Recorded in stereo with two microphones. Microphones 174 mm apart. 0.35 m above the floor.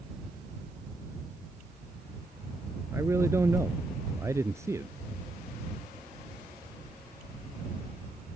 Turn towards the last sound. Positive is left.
turn(degrees=-15)  # may be behind; listen again after turning